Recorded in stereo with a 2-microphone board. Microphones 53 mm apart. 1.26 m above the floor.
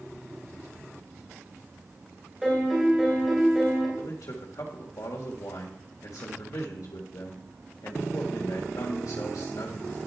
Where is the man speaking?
80° left, 1.7 m.